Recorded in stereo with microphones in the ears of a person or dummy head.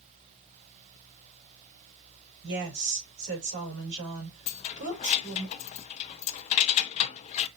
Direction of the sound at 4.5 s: 35° left (ahead or behind).